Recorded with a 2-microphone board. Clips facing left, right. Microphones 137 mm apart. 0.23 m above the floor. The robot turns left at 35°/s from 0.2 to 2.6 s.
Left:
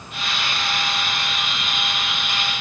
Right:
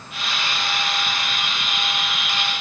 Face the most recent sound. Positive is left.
No sound to turn to.